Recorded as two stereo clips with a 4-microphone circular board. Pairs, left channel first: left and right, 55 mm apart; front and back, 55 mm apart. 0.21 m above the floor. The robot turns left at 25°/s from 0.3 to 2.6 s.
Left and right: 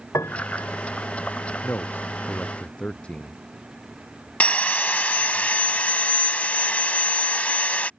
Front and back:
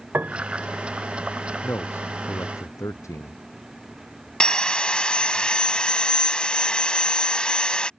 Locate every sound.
0.1 s a piano: 120° left; by 0.7 s 110° left
1.6 s a man speaking: 45° left; by 3.4 s 20° left
4.4 s sawing: 55° left